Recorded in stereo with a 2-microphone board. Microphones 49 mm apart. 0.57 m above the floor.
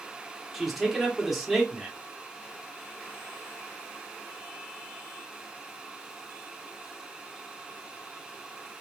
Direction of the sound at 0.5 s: 5° right (ahead or behind).